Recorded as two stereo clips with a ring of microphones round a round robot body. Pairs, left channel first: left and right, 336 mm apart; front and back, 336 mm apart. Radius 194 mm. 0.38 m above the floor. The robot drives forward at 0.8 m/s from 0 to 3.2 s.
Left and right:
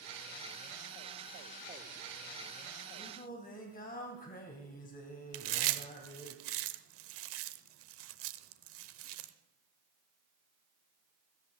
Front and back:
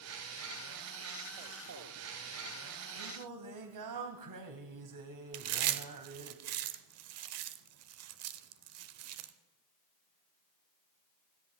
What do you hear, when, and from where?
3.0 s singing: 155° left, 2.5 m
5.3 s chewing: 140° right, 0.8 m